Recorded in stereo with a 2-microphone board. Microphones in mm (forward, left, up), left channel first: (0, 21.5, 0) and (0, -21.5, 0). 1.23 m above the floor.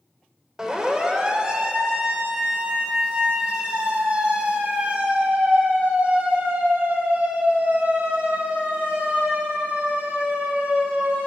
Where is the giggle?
I don't hear a giggle.